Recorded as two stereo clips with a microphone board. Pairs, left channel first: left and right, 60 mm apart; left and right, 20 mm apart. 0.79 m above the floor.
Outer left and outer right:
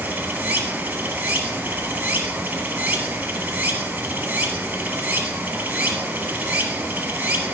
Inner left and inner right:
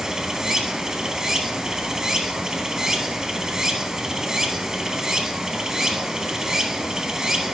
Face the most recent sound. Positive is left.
turn(degrees=-25)  # may be behind; listen again after turning